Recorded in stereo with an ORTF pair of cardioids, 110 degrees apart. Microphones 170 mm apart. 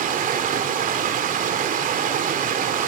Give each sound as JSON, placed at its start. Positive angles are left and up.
{"t": 0.0, "sound": "running water", "azimuth_deg": -55, "distance_m": 3.0}